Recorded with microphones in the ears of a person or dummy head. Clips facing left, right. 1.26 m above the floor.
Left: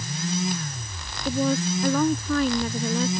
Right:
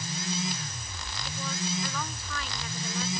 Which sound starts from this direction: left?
A woman speaking, at 1.2 s.